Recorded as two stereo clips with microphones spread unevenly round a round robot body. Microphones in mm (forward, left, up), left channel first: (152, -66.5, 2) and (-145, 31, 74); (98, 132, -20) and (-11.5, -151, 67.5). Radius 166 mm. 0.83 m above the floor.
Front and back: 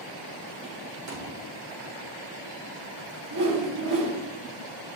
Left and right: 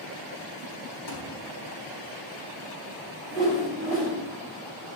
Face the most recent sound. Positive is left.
turn(degrees=145)